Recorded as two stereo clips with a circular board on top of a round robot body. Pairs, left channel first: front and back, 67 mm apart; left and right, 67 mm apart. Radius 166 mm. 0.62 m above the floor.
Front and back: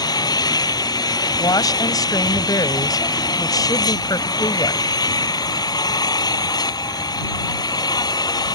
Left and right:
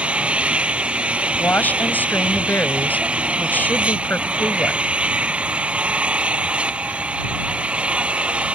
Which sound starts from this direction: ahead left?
A woman speaking, at 1.4 s.